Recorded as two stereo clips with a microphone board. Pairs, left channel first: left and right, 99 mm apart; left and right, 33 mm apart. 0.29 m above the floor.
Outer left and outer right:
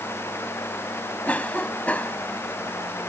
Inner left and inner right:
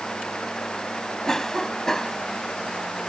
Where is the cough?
15° left (ahead or behind).